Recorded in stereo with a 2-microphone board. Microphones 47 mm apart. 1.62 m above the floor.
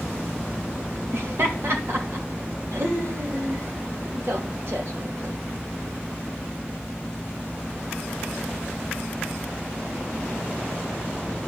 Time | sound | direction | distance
1.1 | laughter | 65° right (ahead or behind) | 2.5 m